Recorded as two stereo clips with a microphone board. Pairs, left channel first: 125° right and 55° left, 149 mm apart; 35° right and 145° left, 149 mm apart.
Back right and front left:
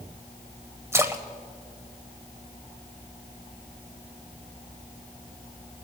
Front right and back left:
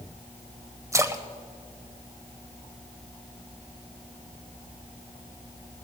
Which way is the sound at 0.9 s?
105° left.